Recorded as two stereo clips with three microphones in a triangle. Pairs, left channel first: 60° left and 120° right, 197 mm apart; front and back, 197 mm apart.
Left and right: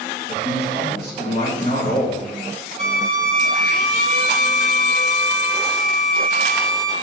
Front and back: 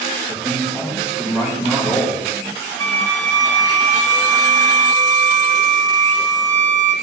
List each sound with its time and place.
0.3 s a man speaking: 95° left, 3.5 m
2.8 s a violin: 65° right, 1.1 m